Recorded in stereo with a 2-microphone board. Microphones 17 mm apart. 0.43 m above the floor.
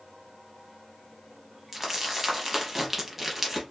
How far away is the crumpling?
About 1.0 m.